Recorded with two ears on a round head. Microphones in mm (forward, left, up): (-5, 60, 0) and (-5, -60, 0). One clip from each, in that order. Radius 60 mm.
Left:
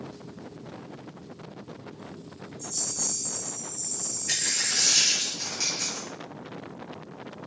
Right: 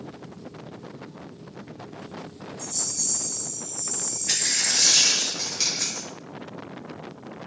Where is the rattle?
25° right (ahead or behind), 1.8 m.